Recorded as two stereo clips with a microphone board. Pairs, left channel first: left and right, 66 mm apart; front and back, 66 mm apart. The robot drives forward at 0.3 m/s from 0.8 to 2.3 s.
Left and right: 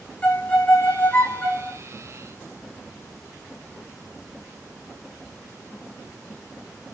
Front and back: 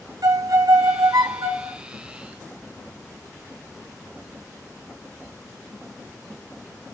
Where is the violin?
155° left, 1.5 m; by 1.8 s 160° left, 1.7 m.